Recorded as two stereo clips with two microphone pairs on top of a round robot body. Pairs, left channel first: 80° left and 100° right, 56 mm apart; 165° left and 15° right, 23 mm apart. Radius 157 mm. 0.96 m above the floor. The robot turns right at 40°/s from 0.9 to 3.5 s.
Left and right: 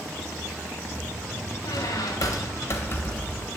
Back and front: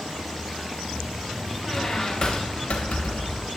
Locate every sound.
1.6 s a squeak: 80° left, 1.1 m; by 3.5 s 155° left, 1.1 m